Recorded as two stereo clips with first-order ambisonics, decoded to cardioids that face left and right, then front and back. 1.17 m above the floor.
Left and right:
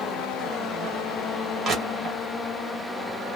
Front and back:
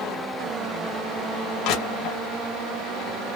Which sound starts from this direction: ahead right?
Crushing, at 1.6 s.